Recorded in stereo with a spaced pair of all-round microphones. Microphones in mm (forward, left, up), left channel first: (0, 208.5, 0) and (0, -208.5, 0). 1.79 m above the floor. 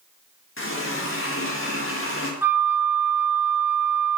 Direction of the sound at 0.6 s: 30° left (ahead or behind).